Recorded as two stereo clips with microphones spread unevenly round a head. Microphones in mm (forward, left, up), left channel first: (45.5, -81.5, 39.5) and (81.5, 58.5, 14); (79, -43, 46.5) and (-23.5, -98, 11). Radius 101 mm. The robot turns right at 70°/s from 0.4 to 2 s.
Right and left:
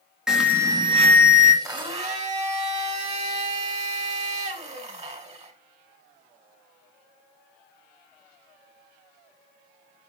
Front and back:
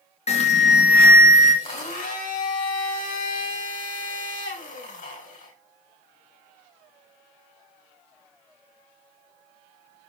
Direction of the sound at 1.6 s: 5° left.